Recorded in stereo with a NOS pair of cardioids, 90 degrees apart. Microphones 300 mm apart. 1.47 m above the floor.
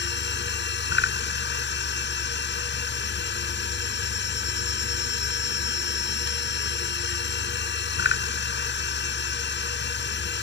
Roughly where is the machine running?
Ahead left.